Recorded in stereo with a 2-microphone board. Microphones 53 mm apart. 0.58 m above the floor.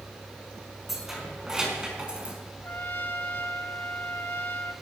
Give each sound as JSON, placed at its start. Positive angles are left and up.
{"t": 0.9, "sound": "keys jangling", "side_deg": -5, "distance_m": 4.5}
{"t": 2.6, "sound": "a trumpet", "side_deg": 35, "distance_m": 1.1}